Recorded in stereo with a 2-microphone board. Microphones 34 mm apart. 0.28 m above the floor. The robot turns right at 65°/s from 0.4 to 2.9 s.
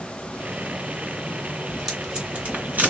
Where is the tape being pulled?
5° right (ahead or behind), 2 m; by 2.9 s 65° right (ahead or behind), 2 m.